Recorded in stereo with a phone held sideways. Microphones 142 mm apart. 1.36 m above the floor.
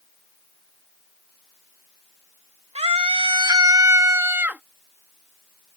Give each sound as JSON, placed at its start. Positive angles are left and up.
{"t": 2.8, "sound": "a scream", "side_deg": -45}